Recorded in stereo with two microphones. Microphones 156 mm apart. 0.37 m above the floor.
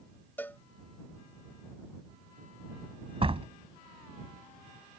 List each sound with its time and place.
0.4 s a cowbell: 10° left (ahead or behind)
3.2 s a door slam: 40° right (ahead or behind)